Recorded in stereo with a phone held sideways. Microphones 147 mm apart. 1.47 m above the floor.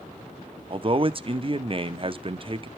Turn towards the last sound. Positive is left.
turn(degrees=-40)  # may be behind; listen again after turning